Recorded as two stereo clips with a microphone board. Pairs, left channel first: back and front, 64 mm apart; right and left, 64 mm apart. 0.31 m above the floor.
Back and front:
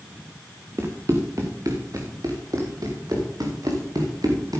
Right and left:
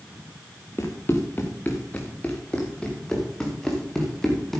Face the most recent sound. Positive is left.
turn(degrees=-5)